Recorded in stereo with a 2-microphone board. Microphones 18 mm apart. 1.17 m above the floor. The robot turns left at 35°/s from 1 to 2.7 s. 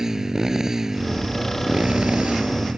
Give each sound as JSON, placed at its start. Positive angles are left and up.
{"t": 0.0, "sound": "a motorcycle", "azimuth_deg": -30}